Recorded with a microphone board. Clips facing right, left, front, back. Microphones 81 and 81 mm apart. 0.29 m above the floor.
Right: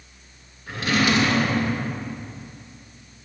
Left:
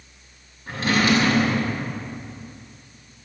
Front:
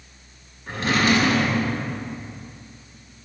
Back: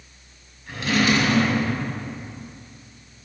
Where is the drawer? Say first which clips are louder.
Left 1 dB, front 1 dB; 45° left, 1.3 m.